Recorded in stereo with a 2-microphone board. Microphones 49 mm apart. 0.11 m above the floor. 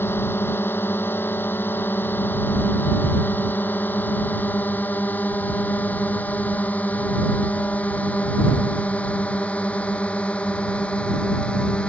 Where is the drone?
50° left (ahead or behind); by 11.9 s 25° left (ahead or behind).